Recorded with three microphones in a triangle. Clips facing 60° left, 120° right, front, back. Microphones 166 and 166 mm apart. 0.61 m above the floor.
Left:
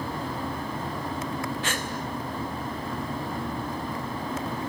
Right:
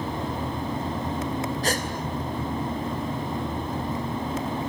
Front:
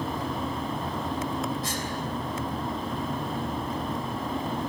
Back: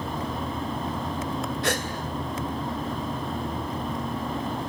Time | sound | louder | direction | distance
1.6 | a gasp | right 5 dB, back 5 dB | 170° right | 2.5 m